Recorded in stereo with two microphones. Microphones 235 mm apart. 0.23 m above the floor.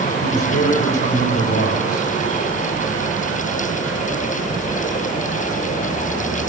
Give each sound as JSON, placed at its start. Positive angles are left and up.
{"t": 0.2, "sound": "a man speaking", "side_deg": 45, "distance_m": 7.5}